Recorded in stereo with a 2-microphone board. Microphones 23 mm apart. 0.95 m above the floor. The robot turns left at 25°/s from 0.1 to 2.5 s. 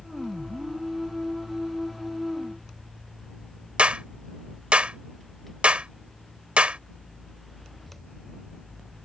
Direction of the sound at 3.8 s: 55° right (ahead or behind).